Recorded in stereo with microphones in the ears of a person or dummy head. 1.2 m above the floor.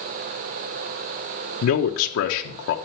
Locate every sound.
1.6 s a man speaking: 70° left (ahead or behind), 0.8 m